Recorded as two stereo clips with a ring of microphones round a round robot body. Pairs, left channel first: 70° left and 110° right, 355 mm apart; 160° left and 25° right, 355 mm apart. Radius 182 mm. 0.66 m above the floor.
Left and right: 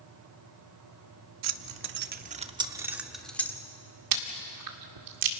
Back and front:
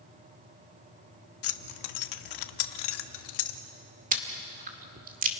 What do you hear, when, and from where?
1.4 s keys jangling: 155° right, 1.0 m; by 3.6 s 150° left, 1.5 m
4.1 s chewing: 90° right, 2 m